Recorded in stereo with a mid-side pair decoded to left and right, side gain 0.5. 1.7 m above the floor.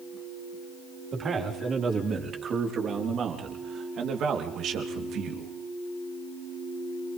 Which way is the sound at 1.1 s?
45° right.